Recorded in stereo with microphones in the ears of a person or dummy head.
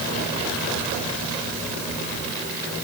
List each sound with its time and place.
Only background noise.